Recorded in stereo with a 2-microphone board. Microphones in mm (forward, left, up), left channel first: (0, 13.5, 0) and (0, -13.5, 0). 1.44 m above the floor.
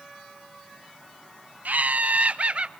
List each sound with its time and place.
1.6 s laughter: 75° right (ahead or behind), 0.7 m; by 2.7 s 45° right (ahead or behind), 1.2 m